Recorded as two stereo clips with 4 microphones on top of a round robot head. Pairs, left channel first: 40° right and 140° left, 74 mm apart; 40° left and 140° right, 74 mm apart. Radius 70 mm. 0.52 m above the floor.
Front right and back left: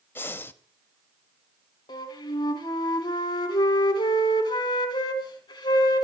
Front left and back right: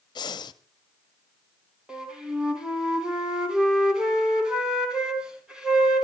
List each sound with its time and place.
0.1 s breathing: 20° left, 1.0 m
1.9 s a flute: 60° right, 3 m